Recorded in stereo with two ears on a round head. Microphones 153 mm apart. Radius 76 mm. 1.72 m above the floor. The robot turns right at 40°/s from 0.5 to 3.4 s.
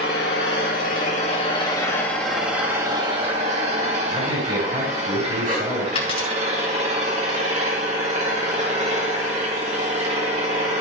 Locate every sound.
0.0 s an engine running: 105° left, 2.5 m; by 10.8 s 140° right, 2.5 m
4.1 s a man speaking: 30° right (ahead or behind), 6 m
6.0 s a dropped coin: 35° left (ahead or behind), 4 m